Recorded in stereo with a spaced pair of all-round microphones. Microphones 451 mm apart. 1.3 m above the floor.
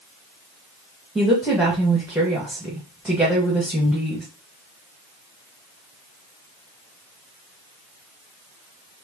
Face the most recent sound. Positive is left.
turn(degrees=-5)  # may be behind; listen again after turning